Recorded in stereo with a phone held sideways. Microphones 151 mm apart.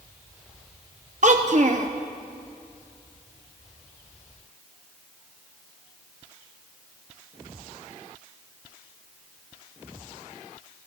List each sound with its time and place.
1.2 s a child speaking: 55° right (ahead or behind), 0.6 m